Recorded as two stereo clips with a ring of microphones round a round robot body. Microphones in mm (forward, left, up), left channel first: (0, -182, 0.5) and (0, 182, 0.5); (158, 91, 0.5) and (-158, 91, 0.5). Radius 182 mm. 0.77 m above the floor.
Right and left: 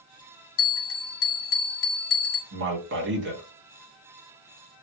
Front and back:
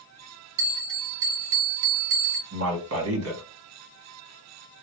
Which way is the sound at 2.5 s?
145° left.